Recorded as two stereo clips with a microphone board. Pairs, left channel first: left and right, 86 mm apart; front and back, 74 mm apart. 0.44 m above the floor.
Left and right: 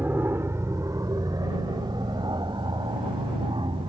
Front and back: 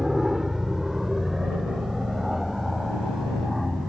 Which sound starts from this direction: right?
An aircraft, at 0.0 s.